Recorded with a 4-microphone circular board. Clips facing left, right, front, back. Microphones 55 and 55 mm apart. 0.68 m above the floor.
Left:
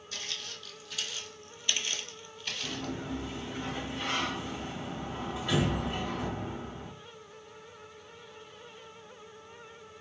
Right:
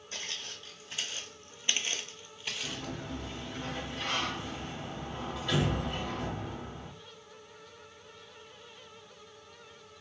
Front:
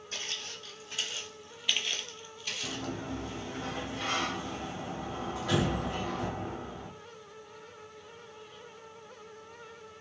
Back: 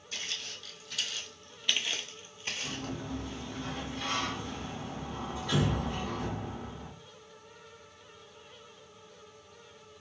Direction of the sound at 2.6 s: 10° left.